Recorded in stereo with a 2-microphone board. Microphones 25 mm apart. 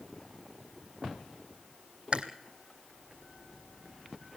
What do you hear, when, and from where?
2.1 s chewing: 45° right (ahead or behind), 1.8 m